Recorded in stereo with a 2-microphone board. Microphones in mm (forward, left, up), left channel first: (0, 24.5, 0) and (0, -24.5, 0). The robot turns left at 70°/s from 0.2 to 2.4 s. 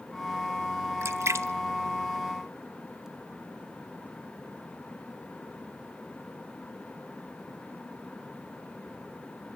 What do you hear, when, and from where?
1.0 s a splash: 70° right (ahead or behind), 1.0 m; by 3.1 s 10° right (ahead or behind), 1.0 m